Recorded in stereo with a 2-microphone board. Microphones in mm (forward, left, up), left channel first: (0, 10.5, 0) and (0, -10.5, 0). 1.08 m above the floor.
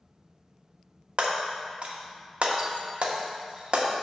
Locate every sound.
1.2 s breaking glass: 55° right (ahead or behind), 0.8 m